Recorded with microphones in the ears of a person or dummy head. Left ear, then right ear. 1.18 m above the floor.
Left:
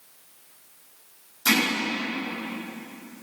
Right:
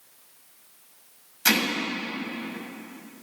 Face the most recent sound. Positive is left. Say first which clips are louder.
# even
turn(degrees=-60)  # may be behind; listen again after turning